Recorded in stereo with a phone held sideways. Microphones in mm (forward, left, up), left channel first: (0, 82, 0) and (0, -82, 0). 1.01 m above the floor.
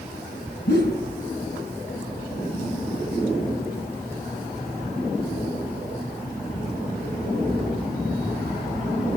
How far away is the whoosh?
About 5 m.